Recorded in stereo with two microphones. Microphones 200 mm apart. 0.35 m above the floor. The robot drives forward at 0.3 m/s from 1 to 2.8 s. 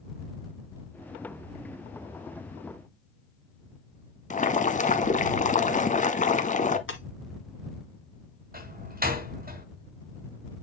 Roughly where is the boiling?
Left.